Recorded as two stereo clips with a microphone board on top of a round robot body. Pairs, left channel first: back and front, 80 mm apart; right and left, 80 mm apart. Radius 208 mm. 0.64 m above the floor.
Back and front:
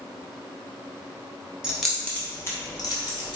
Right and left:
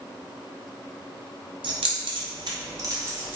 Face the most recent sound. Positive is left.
turn(degrees=160)